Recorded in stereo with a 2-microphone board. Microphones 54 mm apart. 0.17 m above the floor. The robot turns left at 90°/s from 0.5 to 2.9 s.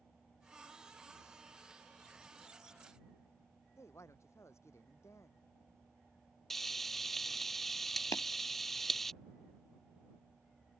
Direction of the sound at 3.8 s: 65° left (ahead or behind).